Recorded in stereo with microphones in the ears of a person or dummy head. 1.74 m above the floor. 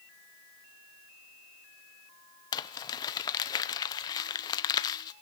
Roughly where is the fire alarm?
I don't hear a fire alarm.